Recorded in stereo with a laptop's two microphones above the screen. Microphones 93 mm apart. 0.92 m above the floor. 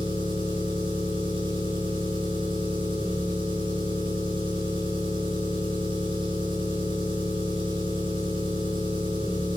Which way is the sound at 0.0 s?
85° right.